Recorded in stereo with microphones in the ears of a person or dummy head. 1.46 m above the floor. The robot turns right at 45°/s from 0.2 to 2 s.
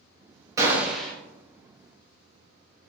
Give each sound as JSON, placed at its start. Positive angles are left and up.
{"t": 0.6, "sound": "a gunshot", "side_deg": -20, "distance_m": 0.7}